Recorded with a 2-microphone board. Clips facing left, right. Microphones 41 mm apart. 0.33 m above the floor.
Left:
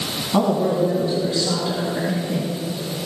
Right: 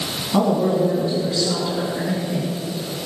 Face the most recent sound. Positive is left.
turn(degrees=30)  # may be behind; listen again after turning